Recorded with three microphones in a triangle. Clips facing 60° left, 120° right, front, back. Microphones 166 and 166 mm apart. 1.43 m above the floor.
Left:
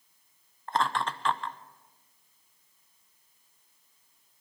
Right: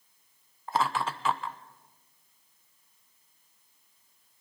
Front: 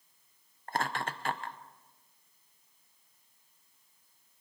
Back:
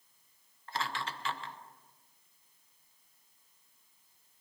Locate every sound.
0.7 s laughter: 35° right, 0.9 m